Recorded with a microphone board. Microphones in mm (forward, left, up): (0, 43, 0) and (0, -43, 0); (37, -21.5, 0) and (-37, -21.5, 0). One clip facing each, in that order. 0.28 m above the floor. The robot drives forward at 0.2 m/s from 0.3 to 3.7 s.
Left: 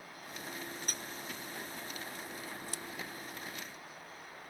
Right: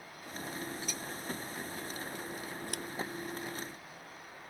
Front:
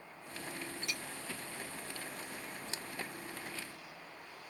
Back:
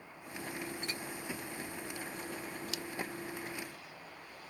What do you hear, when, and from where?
0.8 s a clink: 125° left
2.7 s scissors: 60° right